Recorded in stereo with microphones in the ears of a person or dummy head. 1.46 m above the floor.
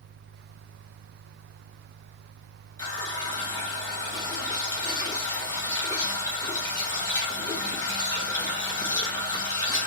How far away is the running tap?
About 1.0 m.